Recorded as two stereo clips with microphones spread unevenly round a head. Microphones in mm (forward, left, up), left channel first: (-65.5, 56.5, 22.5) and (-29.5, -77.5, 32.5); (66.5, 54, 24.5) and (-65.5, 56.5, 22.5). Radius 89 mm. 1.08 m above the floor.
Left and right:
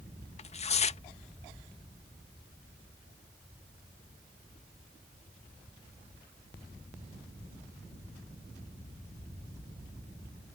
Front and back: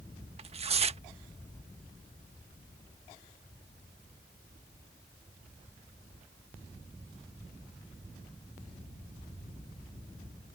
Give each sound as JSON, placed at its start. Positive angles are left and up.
{"t": 0.4, "sound": "tearing paper", "azimuth_deg": 140}